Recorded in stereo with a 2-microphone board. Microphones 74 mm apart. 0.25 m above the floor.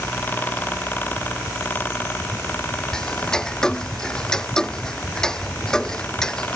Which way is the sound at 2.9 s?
10° left (ahead or behind).